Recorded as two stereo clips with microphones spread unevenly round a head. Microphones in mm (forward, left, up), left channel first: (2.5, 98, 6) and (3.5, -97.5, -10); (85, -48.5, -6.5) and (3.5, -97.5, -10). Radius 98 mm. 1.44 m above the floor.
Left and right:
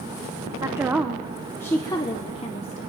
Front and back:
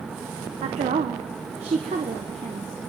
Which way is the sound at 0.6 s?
160° right.